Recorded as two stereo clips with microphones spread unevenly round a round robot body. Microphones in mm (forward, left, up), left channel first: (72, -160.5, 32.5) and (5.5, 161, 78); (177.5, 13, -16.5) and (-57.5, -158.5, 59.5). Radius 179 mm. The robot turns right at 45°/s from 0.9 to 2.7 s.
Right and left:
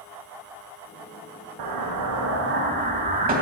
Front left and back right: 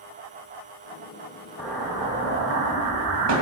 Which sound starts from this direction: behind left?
An explosion, at 1.6 s.